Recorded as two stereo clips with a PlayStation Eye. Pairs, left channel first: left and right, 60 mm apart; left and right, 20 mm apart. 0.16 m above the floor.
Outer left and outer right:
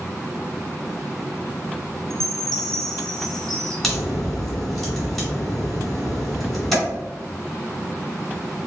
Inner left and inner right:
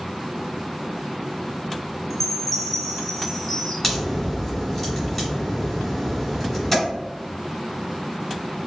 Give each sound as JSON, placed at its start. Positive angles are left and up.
{"t": 2.1, "sound": "a chime", "side_deg": 5, "distance_m": 0.9}
{"t": 3.8, "sound": "a crack", "side_deg": 0, "distance_m": 1.9}